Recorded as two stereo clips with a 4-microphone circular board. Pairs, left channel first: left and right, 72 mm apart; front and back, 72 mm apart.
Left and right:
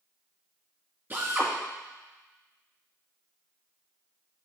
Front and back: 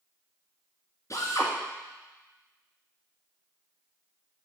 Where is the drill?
35° right, 2.5 m.